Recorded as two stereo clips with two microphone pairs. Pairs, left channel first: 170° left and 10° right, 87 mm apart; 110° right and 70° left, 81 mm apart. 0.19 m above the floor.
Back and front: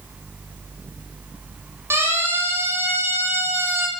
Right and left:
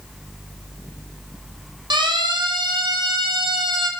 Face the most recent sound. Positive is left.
turn(degrees=55)